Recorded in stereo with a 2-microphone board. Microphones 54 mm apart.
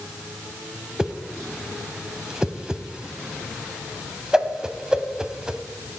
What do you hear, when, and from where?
1.0 s a whoosh: 15° right (ahead or behind), 0.5 m